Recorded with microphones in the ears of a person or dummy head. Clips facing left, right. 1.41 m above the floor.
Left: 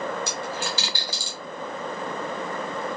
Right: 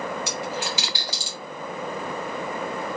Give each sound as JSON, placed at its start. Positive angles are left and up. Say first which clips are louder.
{"t": 0.3, "sound": "a dropped coin", "louder": "right 1 dB", "side_deg": -15, "distance_m": 0.8}